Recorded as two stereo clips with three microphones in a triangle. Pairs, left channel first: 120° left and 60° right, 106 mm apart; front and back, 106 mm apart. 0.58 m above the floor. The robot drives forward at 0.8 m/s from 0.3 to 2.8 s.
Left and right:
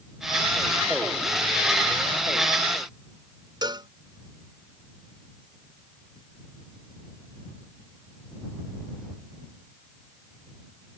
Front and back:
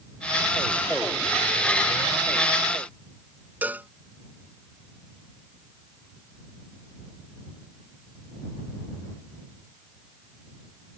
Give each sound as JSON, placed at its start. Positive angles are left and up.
{"t": 3.6, "sound": "a cowbell", "azimuth_deg": -105}